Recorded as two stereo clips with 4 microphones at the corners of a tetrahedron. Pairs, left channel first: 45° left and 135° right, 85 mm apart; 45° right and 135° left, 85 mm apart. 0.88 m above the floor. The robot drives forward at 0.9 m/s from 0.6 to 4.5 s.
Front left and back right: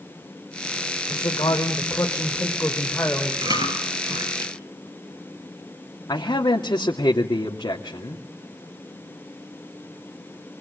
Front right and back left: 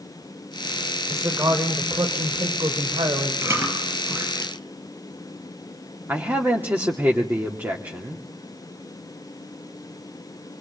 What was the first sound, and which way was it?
A man speaking, 80° left.